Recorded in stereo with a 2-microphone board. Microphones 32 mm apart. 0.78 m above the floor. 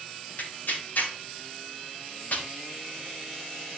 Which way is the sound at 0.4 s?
65° left (ahead or behind).